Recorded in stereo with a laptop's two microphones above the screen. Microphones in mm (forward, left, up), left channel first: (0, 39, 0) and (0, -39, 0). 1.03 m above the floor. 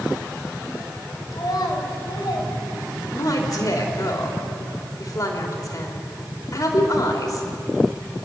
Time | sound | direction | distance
1.3 | a child speaking | 60° left (ahead or behind) | 3.5 m
3.1 | a woman speaking | 50° left (ahead or behind) | 2.5 m